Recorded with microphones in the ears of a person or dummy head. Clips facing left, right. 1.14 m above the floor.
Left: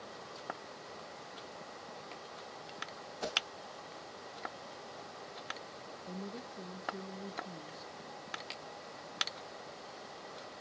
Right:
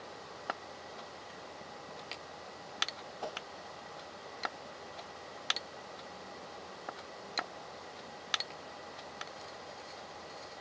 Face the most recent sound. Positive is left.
turn(degrees=75)  # may be behind; listen again after turning